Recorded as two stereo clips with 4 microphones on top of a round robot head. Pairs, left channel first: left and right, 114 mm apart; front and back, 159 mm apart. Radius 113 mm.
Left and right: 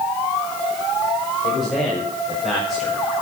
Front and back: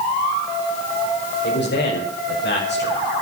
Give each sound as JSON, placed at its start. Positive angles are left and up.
{"t": 1.4, "sound": "a man speaking", "azimuth_deg": 5, "distance_m": 5.5}